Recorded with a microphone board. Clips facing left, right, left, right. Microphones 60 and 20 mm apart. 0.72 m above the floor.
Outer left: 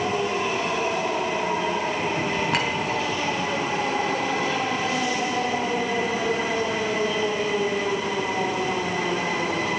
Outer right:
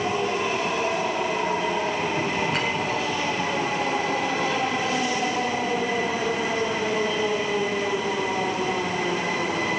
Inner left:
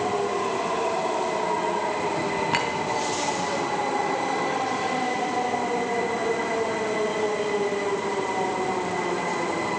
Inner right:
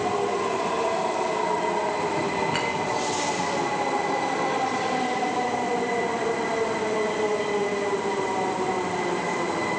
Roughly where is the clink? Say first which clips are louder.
Outer left 1 dB, inner left 1 dB; left.